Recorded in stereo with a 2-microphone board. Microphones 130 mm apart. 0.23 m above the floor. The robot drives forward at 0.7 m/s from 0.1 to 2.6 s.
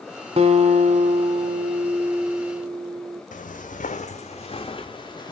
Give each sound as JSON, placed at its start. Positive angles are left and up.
{"t": 0.4, "sound": "a guitar", "side_deg": -50, "distance_m": 0.8}
{"t": 3.3, "sound": "footsteps", "side_deg": 70, "distance_m": 0.6}